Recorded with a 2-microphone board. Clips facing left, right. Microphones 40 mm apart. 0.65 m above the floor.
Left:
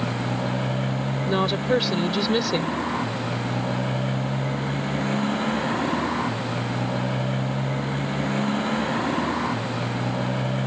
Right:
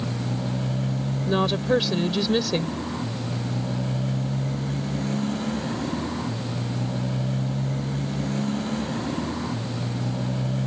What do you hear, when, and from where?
0.0 s a motorcycle: 35° left (ahead or behind)
1.3 s a woman speaking: 5° left (ahead or behind)